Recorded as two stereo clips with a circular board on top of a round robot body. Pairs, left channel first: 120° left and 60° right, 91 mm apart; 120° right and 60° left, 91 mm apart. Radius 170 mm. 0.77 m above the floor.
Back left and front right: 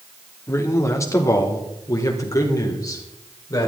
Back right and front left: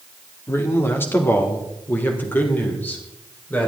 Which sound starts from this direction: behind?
A man speaking, at 0.5 s.